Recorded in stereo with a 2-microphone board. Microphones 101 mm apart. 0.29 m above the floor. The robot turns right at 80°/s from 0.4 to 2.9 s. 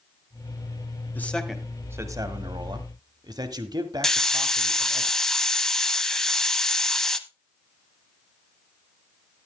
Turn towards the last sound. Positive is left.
turn(degrees=5)  # may be behind; listen again after turning